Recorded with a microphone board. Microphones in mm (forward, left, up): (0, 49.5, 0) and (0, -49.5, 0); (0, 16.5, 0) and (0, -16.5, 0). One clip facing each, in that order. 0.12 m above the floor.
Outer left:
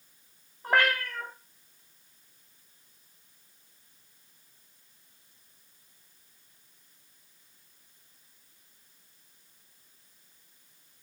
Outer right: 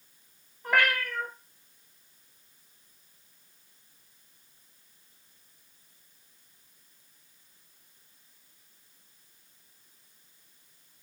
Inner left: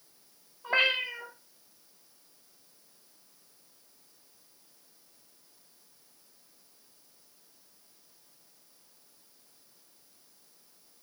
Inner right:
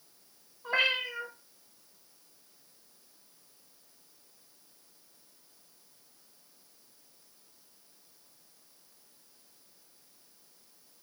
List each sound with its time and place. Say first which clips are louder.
0.6 s a cat meowing: outer left 1 dB, inner left 2 dB; 35° left (ahead or behind), 1.2 m